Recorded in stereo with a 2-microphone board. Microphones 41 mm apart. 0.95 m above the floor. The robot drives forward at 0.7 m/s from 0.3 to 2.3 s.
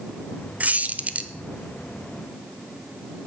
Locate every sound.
0.6 s a squeak: 40° right (ahead or behind), 0.7 m; by 1.3 s 35° right (ahead or behind), 0.8 m